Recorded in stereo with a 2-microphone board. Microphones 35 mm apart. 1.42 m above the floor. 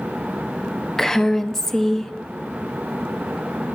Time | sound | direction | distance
1.0 | a woman speaking | 10° left (ahead or behind) | 0.7 m